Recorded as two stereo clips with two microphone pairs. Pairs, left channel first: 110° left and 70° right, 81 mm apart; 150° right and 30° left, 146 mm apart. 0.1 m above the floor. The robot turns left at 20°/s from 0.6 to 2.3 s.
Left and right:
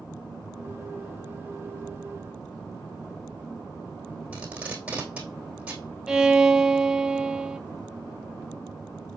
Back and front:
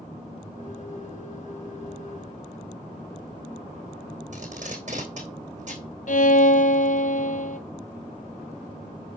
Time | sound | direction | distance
4.3 | tape being pulled | straight ahead | 2.5 m
6.1 | a violin | 150° right | 0.5 m